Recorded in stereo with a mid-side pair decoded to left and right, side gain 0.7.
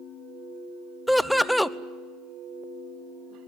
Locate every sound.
1.1 s laughter: straight ahead, 1.0 m